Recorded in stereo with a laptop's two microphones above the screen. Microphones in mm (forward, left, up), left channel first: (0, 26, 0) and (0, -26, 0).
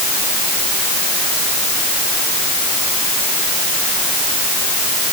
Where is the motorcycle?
I don't hear a motorcycle.